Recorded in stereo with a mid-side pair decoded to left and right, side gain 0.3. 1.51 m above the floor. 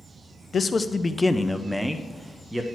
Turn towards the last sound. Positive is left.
turn(degrees=-20)